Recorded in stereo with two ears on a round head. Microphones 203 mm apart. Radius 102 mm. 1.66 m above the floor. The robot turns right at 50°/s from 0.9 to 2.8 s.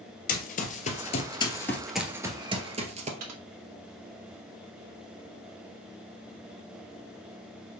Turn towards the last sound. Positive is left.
turn(degrees=-85)